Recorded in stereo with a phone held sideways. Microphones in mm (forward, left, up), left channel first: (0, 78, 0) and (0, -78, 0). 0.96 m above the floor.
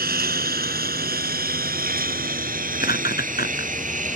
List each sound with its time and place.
0.0 s a lawn mower: 85° right; by 4.2 s 55° right (ahead or behind)
2.8 s laughter: 80° left